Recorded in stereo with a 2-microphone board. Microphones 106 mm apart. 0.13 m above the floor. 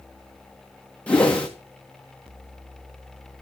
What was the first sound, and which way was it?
A whoosh, 10° left (ahead or behind).